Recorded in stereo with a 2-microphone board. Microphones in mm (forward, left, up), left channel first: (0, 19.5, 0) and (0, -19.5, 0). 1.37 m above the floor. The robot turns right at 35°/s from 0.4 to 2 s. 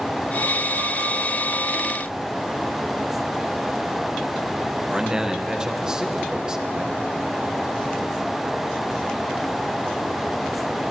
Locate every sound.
4.9 s a man speaking: 20° right (ahead or behind), 1.3 m